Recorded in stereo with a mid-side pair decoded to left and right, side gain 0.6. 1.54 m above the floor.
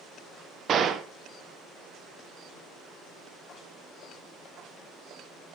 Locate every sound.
0.7 s a gunshot: 40° right, 1.1 m